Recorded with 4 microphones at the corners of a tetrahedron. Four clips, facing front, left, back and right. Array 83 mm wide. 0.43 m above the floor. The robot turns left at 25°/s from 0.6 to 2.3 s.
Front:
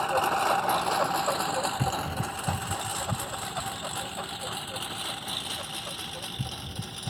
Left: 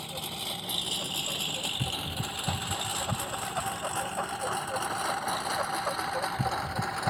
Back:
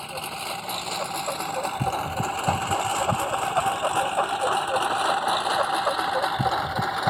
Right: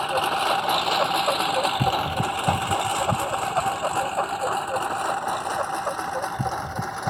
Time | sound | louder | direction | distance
0.0 | a lawn mower | right 16 dB, front 8 dB | 60° right | ?